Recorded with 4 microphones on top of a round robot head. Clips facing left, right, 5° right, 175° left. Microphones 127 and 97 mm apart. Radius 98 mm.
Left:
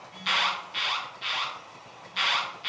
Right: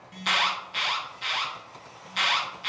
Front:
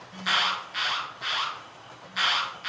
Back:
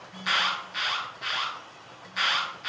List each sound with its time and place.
0.1 s an alarm: 95° right, 0.8 m